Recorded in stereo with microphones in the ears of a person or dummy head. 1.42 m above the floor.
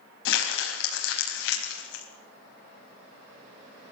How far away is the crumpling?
About 4.5 m.